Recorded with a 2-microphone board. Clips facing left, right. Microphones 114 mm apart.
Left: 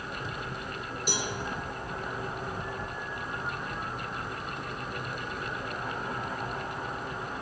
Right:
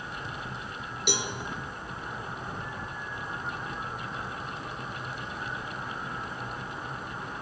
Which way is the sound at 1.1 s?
70° right (ahead or behind).